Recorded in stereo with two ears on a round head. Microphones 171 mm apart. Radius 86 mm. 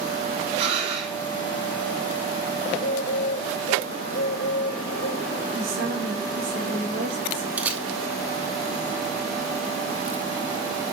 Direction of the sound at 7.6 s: 10° right (ahead or behind).